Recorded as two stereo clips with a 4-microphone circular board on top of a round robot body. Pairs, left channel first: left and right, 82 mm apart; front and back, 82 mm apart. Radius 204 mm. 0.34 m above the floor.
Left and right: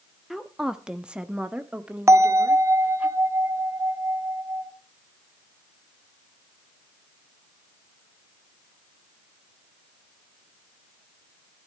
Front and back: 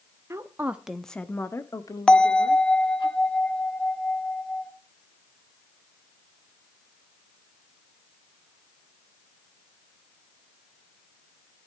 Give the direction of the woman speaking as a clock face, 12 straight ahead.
6 o'clock.